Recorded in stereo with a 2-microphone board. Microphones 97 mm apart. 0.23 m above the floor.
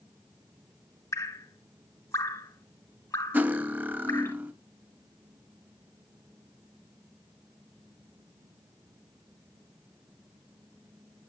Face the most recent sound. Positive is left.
turn(degrees=-20)  # may be behind; listen again after turning